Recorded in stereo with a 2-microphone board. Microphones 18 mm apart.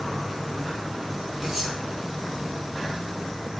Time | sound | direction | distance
1.4 | cutlery clinking | 15° right (ahead or behind) | 3.5 m